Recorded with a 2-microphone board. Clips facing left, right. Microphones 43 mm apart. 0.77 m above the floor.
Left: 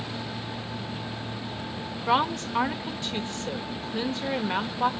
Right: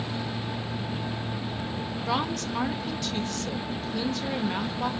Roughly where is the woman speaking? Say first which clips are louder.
Left 5 dB; left.